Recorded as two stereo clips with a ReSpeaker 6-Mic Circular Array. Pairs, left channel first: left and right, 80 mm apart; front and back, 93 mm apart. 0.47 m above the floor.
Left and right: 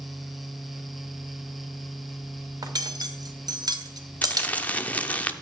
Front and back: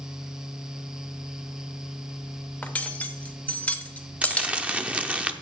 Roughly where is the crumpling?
Behind left.